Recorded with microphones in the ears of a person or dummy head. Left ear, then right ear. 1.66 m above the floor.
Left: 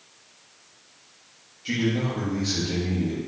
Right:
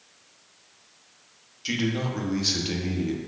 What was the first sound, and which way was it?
A man speaking, 35° right (ahead or behind).